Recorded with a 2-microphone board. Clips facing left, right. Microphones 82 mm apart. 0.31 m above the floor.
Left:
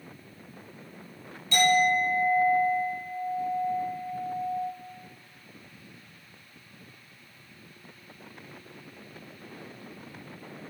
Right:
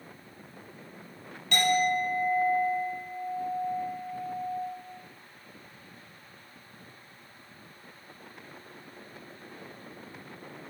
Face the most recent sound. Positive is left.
turn(degrees=-60)  # may be behind; listen again after turning